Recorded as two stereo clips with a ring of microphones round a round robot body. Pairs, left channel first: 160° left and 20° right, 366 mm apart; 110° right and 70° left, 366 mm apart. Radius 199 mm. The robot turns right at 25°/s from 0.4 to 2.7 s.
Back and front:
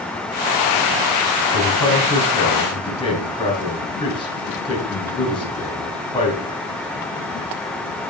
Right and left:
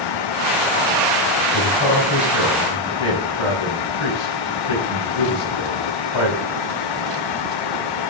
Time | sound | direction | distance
1.5 | a man speaking | 155° right | 3.5 m